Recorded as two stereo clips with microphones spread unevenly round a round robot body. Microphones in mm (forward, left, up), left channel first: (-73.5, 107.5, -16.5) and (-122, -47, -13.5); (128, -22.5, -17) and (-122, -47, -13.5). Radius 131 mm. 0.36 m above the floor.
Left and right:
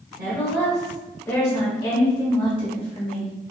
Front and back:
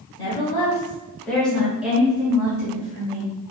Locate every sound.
0.2 s a woman speaking: 40° right, 1.0 m; by 3.3 s 110° left, 1.5 m